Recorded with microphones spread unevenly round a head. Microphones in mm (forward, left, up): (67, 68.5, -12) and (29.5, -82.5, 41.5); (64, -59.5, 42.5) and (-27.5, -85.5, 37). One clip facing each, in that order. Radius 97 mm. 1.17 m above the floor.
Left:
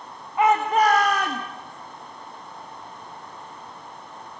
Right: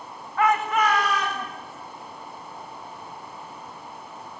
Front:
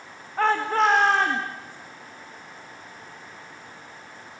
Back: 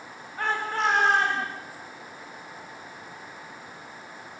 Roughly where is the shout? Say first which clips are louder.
Left 3 dB, front 6 dB; ahead.